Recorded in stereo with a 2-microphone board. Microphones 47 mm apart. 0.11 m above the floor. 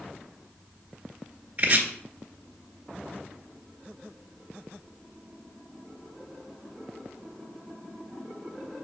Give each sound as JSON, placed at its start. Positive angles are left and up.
{"t": 1.6, "sound": "chopping", "side_deg": -30, "distance_m": 1.7}